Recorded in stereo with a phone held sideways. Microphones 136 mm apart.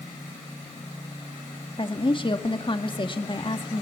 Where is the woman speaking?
40° left (ahead or behind), 1.8 m.